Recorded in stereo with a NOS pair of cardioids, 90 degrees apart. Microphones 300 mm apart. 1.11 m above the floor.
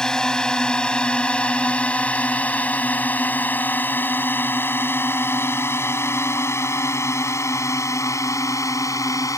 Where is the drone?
Straight ahead; by 9.4 s 10° left.